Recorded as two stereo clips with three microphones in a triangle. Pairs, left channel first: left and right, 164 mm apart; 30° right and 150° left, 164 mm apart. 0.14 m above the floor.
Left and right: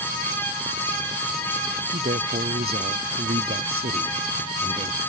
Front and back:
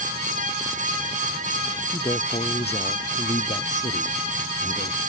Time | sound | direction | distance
1.9 | a man speaking | 85° right | ?